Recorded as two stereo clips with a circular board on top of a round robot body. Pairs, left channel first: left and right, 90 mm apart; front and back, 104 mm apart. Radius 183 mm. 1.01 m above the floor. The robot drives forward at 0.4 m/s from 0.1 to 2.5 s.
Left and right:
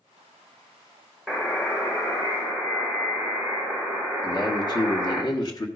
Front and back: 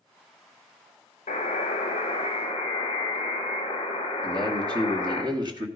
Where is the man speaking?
130° left, 1.6 m.